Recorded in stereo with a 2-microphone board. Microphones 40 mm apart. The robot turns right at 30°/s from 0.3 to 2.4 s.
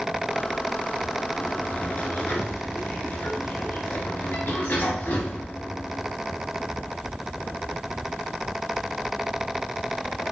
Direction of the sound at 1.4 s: 40° left.